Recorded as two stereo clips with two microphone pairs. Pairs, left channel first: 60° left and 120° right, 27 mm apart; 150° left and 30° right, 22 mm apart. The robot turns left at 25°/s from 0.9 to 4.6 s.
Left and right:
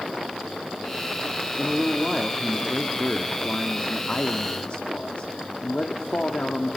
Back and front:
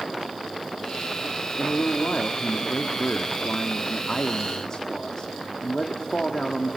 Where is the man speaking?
170° left, 1.4 m; by 6.8 s 90° left, 1.4 m.